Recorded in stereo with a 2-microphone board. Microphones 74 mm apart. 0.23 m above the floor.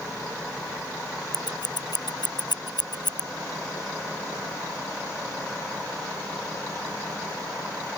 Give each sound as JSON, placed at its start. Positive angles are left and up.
{"t": 1.3, "sound": "scissors", "side_deg": 85}